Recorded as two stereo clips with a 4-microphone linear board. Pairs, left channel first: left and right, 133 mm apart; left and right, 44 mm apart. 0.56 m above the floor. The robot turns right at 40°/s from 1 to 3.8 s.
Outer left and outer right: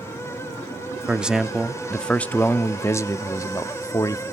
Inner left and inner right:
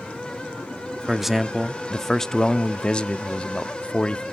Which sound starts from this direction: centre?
A man speaking, at 1.1 s.